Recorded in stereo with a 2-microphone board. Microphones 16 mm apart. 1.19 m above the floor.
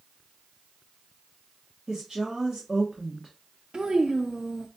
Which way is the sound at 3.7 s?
60° right (ahead or behind).